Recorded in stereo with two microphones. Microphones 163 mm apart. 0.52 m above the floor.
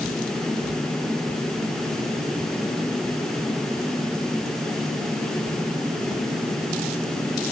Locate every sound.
Only background noise.